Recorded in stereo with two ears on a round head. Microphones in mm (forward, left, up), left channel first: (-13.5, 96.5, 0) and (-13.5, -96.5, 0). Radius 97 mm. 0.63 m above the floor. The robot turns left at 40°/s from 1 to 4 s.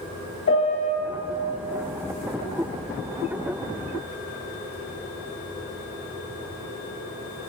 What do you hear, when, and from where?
0.5 s a piano: 55° left (ahead or behind), 2.0 m